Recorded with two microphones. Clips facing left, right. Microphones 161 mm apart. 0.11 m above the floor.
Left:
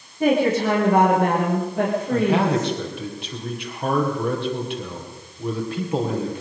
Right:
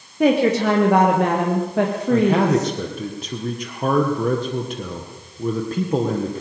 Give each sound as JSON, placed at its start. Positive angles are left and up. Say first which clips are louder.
{"t": 0.2, "sound": "a woman speaking", "louder": "right 2 dB", "side_deg": -75, "distance_m": 5.5}
{"t": 2.1, "sound": "a man speaking", "louder": "right 4 dB", "side_deg": -40, "distance_m": 3.0}